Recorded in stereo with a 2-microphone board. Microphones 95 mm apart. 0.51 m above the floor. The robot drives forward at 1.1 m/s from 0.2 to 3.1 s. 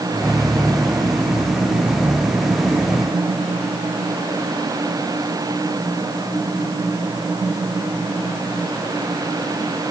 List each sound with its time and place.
Only background noise.